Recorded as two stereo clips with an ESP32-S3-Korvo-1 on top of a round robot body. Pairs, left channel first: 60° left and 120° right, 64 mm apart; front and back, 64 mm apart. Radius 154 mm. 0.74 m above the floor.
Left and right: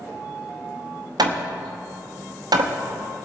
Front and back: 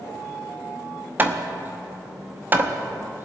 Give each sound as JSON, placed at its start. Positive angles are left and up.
{"t": 1.2, "sound": "hammering", "azimuth_deg": -120, "distance_m": 1.0}